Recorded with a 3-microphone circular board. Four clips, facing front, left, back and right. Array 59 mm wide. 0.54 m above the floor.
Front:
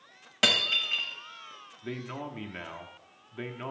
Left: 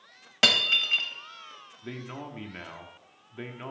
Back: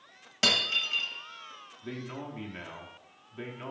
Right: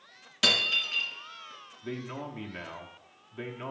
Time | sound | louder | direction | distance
0.4 | breaking glass | left 3 dB, front 2 dB | 75° left | 1.0 m
1.8 | a man speaking | right 2 dB, front 2 dB | 20° left | 0.7 m